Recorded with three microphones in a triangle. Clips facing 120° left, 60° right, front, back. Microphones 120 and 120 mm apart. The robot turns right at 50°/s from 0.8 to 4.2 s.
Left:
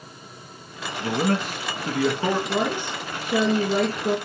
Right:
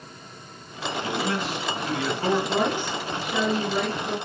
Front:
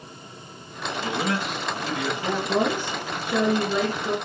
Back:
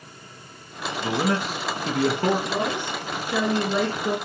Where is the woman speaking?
25° left, 2.5 m; by 4.2 s 110° left, 2.5 m.